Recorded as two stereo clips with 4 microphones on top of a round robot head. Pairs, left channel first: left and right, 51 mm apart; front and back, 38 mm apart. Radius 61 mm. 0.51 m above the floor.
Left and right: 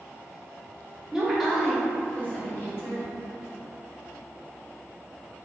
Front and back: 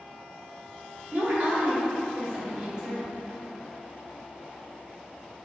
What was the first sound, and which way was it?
A woman speaking, 165° right.